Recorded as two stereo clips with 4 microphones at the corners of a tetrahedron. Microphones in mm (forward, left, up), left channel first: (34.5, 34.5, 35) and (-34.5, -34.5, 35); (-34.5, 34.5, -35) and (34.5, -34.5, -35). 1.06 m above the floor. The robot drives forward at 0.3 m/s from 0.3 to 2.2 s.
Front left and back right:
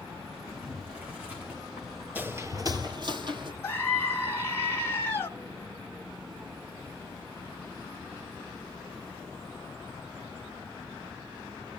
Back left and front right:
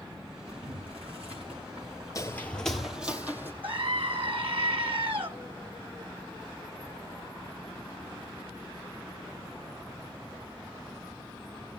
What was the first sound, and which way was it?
Boiling, 60° right.